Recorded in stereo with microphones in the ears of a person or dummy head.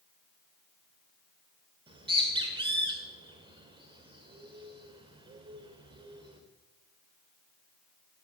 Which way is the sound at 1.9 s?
25° right (ahead or behind).